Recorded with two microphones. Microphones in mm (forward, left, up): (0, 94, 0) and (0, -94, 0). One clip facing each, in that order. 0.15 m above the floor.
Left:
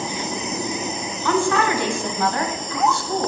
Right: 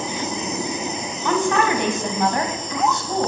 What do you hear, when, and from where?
1.2 s a woman speaking: 20° right (ahead or behind), 1.1 m